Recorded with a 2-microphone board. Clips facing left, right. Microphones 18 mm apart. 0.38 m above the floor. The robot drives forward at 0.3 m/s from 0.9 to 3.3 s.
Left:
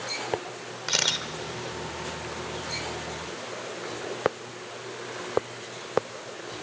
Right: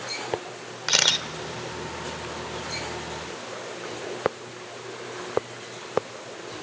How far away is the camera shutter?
About 0.9 m.